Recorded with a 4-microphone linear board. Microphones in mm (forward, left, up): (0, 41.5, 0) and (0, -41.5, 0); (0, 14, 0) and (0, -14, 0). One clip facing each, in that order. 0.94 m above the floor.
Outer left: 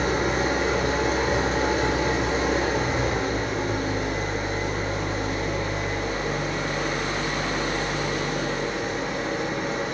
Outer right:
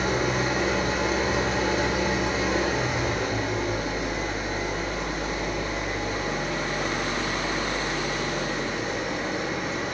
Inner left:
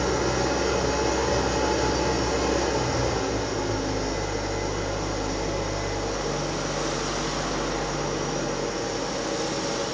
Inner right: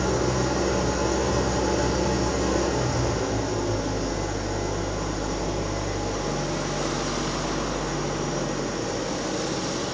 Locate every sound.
0.0 s an engine running: 35° left (ahead or behind), 0.9 m